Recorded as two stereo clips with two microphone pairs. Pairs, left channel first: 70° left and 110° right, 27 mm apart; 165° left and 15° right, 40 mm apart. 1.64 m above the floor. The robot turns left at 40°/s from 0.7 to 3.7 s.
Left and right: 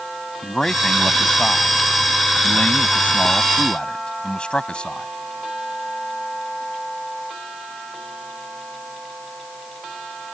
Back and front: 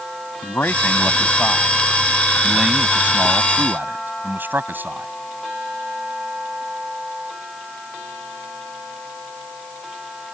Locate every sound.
0.4 s a man speaking: 140° left; by 5.1 s 20° left